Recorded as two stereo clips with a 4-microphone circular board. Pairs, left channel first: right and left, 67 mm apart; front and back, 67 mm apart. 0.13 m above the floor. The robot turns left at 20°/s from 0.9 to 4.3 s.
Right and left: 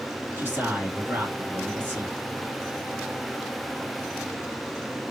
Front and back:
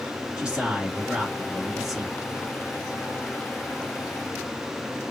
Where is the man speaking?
120° left, 1.3 m; by 2.1 s 95° left, 1.3 m.